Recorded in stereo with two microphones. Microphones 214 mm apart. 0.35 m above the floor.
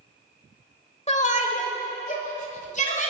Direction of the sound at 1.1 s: 30° left (ahead or behind).